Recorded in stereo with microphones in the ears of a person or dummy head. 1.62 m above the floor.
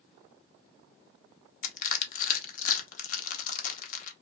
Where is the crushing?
50° left (ahead or behind), 1.0 m.